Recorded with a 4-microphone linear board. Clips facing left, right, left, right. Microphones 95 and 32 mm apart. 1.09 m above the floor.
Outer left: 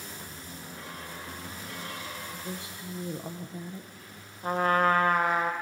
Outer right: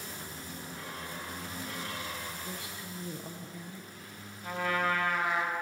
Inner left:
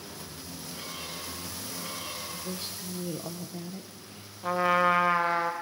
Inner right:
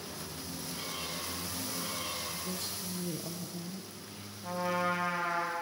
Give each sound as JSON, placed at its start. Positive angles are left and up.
{"t": 2.3, "sound": "a woman speaking", "side_deg": 25, "distance_m": 0.7}
{"t": 4.4, "sound": "a trumpet", "side_deg": 40, "distance_m": 0.8}